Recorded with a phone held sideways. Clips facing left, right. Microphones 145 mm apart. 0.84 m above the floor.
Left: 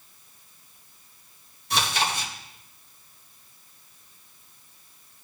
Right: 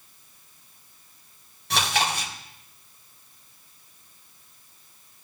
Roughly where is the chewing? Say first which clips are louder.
Right 1 dB; right.